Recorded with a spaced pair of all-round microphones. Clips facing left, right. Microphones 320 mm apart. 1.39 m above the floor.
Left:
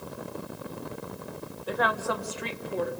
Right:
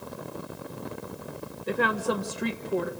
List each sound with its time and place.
1.7 s a woman speaking: 30° right (ahead or behind), 1.5 m; by 2.9 s 65° right (ahead or behind), 1.9 m